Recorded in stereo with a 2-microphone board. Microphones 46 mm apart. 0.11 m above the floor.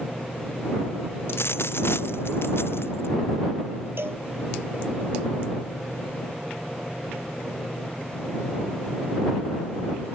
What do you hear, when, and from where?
1.3 s a dropped coin: 60° left (ahead or behind)
4.0 s a cowbell: 55° right (ahead or behind)